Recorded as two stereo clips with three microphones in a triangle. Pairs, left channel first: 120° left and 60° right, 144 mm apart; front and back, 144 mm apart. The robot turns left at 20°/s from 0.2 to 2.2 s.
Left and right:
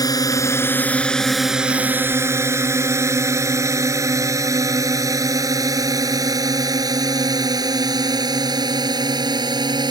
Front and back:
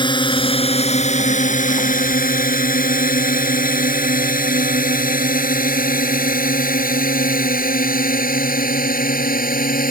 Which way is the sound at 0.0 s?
55° left.